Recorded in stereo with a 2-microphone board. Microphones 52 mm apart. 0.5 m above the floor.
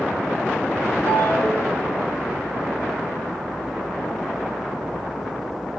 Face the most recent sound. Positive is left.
turn(degrees=-65)  # may be behind; listen again after turning